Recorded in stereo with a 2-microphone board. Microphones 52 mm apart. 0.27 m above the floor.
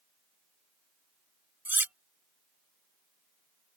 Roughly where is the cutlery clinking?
Right.